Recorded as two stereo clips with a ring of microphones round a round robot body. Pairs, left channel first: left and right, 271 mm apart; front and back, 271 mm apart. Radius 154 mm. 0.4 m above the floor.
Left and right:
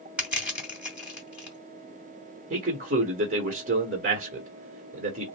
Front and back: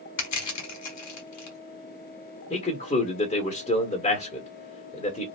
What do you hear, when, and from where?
0.2 s crushing: 5° right, 2 m
2.5 s a man speaking: 55° right, 1.2 m